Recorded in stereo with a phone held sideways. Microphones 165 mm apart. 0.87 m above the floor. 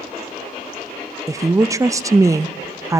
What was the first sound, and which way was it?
A woman speaking, 20° right (ahead or behind).